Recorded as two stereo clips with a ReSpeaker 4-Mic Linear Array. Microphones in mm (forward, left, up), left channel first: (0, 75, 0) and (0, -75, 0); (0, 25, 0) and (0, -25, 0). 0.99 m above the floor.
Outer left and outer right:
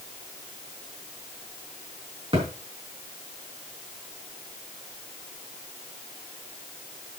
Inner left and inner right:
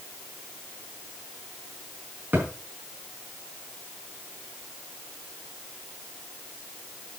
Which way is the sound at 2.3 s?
35° right (ahead or behind).